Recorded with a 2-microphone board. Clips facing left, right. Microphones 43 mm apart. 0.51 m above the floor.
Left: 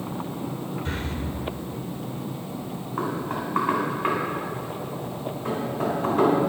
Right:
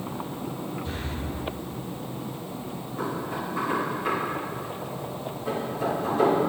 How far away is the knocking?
About 3 m.